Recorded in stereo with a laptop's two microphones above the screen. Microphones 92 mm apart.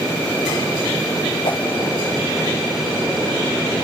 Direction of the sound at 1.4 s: 85° left.